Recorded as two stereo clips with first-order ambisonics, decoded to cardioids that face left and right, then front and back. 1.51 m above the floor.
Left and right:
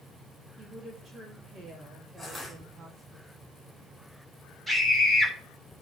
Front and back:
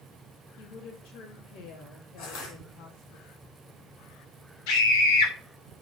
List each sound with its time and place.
0.6 s a woman speaking: 15° right, 2.5 m
2.2 s crushing: 15° left, 6.5 m
4.7 s a scream: 5° right, 5 m